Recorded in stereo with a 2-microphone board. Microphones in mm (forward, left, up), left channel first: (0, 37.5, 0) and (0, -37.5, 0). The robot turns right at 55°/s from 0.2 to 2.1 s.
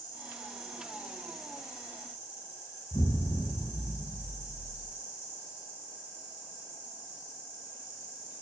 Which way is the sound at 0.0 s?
105° left.